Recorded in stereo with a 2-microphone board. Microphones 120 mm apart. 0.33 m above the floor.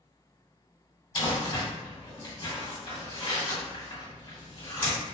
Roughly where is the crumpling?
Left.